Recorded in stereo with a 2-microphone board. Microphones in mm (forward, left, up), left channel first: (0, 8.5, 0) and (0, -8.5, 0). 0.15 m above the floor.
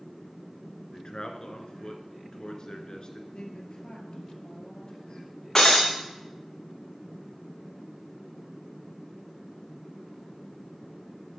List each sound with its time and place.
0.9 s a man speaking: 50° left (ahead or behind), 1.5 m
3.3 s a woman speaking: 60° left (ahead or behind), 2.5 m
5.5 s breaking glass: 25° left (ahead or behind), 2.5 m